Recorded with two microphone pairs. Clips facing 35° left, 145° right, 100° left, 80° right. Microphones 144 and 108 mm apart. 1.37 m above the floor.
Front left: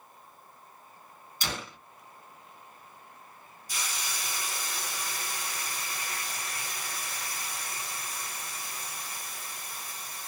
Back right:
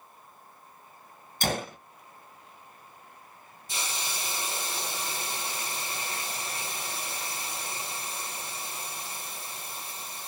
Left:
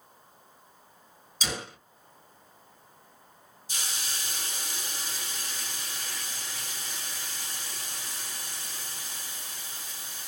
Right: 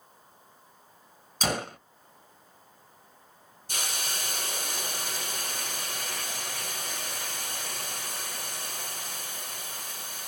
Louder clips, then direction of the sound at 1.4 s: Back right 7 dB, right 6 dB; 110° right.